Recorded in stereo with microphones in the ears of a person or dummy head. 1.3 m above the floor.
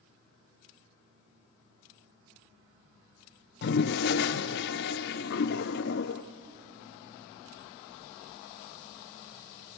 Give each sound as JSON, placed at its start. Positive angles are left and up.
{"t": 3.6, "sound": "a toilet flushing", "side_deg": 55, "distance_m": 0.7}